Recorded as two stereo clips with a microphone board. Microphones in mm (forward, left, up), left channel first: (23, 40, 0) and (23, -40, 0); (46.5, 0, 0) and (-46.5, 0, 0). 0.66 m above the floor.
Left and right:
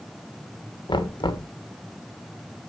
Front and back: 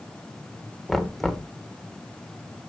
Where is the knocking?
90° left, 1.4 m.